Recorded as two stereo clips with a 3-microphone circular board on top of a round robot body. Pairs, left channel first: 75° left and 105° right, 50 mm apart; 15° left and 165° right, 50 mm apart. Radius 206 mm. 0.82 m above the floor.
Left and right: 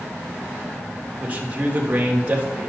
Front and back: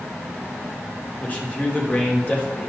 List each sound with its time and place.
1.2 s a man speaking: 45° right, 3 m